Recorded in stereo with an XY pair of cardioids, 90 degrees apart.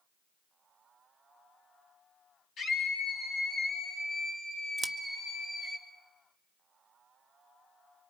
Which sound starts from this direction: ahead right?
Scissors, at 4.8 s.